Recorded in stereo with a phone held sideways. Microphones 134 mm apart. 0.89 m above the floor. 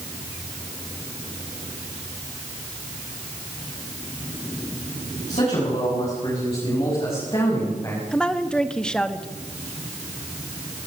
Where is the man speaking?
55° left (ahead or behind), 8 m; by 8.0 s 25° left (ahead or behind), 6 m.